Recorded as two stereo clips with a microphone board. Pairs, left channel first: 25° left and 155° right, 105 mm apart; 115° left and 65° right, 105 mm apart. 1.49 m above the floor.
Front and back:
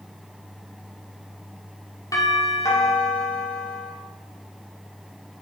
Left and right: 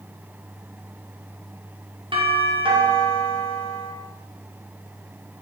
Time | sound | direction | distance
2.1 | a doorbell | 35° right | 5 m